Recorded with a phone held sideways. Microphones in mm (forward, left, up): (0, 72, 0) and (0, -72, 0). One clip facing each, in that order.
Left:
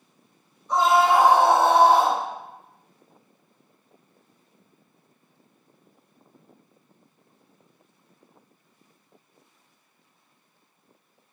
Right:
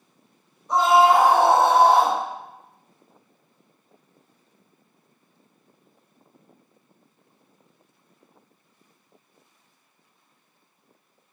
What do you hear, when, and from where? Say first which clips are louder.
0.7 s a scream: right 2 dB; 35° right (ahead or behind), 1.9 m; by 2.2 s 70° right (ahead or behind), 1.9 m